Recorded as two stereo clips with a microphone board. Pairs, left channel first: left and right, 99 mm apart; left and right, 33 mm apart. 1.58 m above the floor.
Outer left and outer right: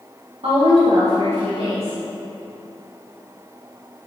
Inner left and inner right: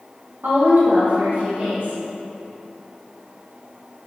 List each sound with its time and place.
0.4 s a woman speaking: 80° right, 2.0 m